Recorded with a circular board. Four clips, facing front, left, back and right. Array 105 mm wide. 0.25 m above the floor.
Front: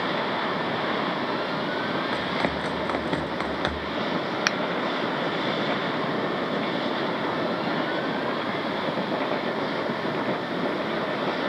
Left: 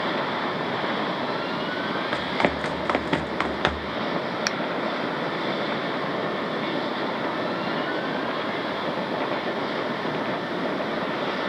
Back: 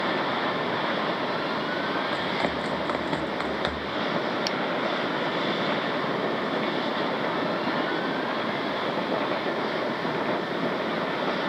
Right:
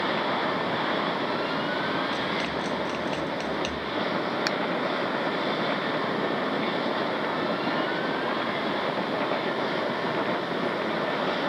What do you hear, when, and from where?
2.1 s running footsteps: 85° left; by 4.0 s 90° left
4.5 s a finger snap: 10° left